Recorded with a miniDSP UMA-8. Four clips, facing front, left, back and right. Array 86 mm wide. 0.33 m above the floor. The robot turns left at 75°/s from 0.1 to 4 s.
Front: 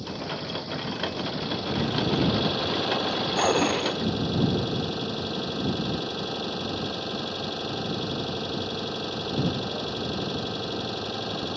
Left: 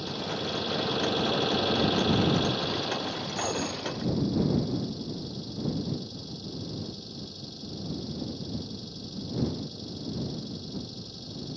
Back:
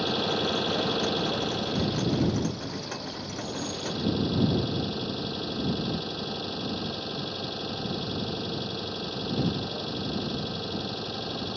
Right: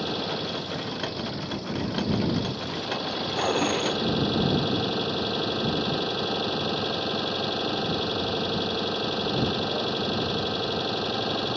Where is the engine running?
150° right; by 11.6 s 80° right.